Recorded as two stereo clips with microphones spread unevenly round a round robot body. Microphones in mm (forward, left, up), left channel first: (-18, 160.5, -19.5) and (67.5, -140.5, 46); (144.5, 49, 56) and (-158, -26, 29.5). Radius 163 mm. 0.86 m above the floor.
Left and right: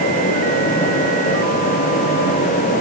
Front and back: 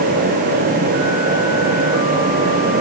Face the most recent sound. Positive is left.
No sound to turn to.